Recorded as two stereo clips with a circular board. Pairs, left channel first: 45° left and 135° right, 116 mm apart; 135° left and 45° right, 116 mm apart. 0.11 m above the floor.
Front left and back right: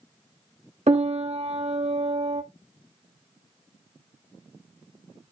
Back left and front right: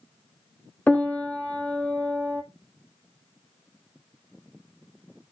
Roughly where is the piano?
Behind right.